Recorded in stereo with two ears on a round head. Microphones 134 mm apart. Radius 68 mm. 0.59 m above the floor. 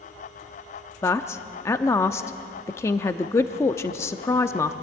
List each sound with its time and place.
1.0 s a man speaking: 20° left (ahead or behind), 0.6 m